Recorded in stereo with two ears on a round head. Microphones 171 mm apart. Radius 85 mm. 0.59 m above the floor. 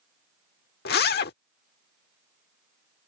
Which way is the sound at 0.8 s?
55° left (ahead or behind).